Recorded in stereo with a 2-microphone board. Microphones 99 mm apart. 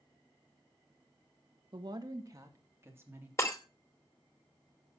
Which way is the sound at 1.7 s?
50° right (ahead or behind).